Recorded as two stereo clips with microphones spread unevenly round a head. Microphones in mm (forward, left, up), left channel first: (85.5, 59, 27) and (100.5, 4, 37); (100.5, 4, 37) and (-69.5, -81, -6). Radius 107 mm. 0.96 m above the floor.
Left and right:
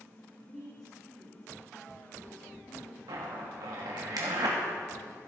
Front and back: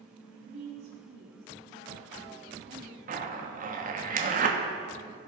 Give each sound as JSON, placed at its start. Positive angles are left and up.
{"t": 0.3, "sound": "a woman speaking", "azimuth_deg": -165, "distance_m": 2.5}
{"t": 3.1, "sound": "a zipper", "azimuth_deg": -110, "distance_m": 1.2}